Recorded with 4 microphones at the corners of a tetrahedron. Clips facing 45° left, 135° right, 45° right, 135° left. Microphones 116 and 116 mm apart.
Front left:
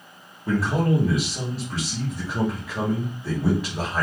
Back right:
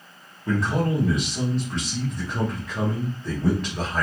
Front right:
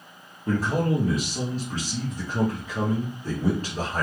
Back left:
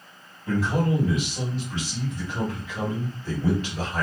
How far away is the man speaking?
About 0.9 m.